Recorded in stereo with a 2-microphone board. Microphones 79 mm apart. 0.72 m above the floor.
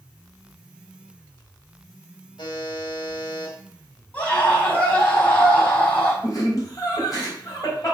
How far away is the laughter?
About 4 m.